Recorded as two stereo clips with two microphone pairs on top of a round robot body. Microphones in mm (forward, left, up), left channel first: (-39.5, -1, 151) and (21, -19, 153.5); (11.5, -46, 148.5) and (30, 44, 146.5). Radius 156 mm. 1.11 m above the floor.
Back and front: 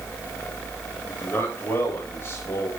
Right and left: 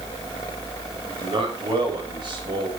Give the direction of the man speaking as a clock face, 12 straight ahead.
8 o'clock.